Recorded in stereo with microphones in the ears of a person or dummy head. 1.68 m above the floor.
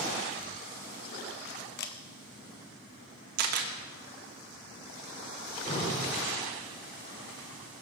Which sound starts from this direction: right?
A camera shutter, at 3.4 s.